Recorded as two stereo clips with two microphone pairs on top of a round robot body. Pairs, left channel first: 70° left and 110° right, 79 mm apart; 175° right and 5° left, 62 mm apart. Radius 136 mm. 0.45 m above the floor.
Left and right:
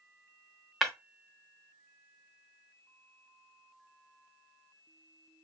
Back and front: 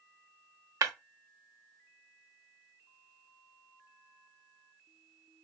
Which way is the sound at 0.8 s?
20° right.